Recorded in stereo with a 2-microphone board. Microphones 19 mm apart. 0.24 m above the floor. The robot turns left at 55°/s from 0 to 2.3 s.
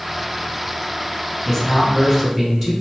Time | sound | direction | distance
1.4 | a man speaking | 10° right | 1.8 m